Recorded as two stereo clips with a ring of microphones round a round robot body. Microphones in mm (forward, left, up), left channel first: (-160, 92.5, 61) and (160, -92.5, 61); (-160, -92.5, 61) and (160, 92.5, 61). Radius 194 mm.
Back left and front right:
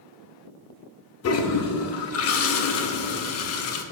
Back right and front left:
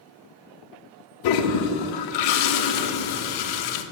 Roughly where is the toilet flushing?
Behind.